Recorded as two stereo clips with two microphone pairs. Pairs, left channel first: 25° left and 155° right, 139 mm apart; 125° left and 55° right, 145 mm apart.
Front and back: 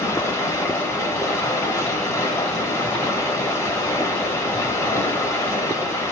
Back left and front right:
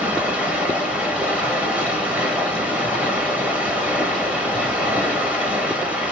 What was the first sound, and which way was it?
Running water, 10° left.